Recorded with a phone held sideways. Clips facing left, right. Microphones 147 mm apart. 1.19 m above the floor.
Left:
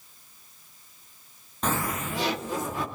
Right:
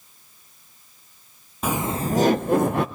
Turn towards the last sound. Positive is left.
turn(degrees=-65)  # may be behind; listen again after turning